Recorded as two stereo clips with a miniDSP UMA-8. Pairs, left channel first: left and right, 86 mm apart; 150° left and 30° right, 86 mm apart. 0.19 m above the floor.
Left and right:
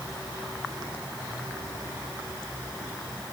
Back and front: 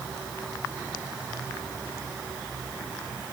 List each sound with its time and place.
Only background noise.